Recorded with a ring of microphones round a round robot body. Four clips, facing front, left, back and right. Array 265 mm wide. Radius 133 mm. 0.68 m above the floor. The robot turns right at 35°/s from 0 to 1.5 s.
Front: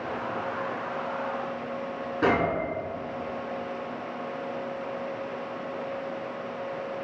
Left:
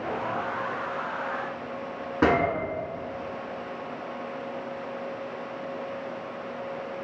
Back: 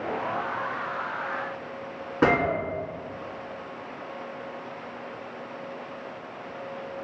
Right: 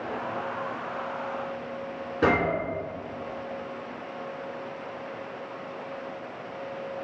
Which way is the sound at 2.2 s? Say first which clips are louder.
Left 1 dB, back 2 dB; 140° left.